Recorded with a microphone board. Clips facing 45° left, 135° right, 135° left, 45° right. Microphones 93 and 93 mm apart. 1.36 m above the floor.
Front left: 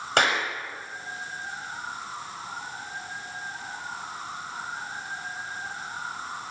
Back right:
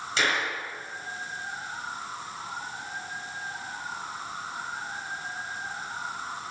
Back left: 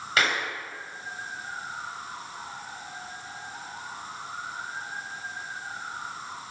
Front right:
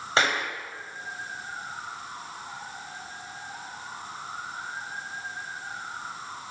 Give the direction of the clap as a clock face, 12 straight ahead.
11 o'clock.